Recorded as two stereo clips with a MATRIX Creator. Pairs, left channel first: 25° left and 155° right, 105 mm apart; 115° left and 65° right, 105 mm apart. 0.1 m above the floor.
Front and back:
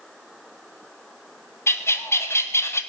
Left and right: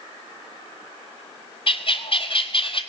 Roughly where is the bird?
Left.